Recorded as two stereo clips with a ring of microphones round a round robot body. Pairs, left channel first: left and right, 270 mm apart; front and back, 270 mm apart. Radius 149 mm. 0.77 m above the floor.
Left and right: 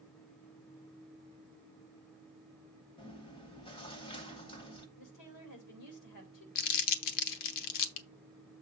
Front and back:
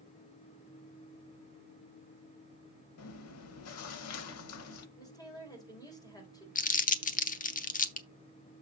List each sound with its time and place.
3.0 s chewing: 20° left, 0.8 m
5.0 s a woman speaking: 75° left, 3.5 m
6.5 s crumpling: 65° left, 0.9 m